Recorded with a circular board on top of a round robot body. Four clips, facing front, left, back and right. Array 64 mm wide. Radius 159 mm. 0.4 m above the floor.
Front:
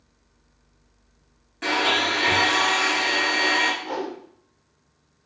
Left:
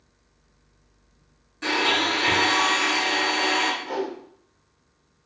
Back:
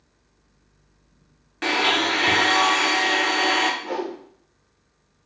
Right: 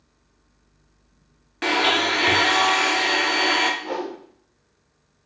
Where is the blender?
125° right, 0.8 m.